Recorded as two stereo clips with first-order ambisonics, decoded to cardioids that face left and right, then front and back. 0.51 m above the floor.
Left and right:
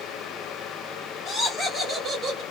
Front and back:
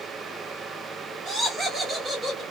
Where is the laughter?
140° left, 1.1 m; by 2.4 s 115° right, 1.3 m.